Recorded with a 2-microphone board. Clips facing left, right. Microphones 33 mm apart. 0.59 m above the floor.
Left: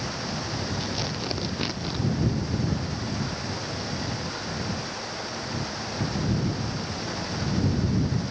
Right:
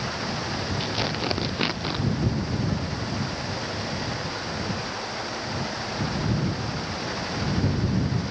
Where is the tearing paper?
30° right (ahead or behind).